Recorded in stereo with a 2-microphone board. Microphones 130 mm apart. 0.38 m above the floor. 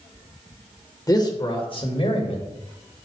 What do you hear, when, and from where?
1.1 s a man speaking: 30° left (ahead or behind), 1.1 m; by 2.5 s 50° left (ahead or behind), 1.5 m